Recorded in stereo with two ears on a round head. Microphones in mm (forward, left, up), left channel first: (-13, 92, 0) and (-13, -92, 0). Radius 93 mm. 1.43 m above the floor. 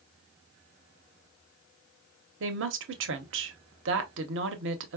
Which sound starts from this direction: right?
A woman speaking, at 2.4 s.